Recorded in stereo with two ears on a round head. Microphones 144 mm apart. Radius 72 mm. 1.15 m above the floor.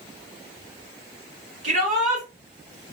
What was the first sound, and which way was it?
A shout, 45° right (ahead or behind).